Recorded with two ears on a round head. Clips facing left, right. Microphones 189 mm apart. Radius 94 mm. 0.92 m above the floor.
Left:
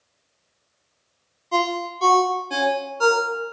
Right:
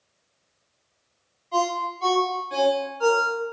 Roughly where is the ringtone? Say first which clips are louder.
Left 2 dB; left.